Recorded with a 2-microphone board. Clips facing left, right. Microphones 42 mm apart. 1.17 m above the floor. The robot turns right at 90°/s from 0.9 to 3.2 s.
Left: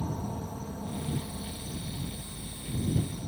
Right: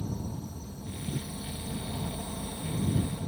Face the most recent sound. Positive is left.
turn(degrees=-25)